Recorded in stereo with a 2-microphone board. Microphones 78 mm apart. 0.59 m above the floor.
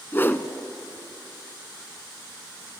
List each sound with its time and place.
0.1 s a whoosh: 30° left (ahead or behind), 0.9 m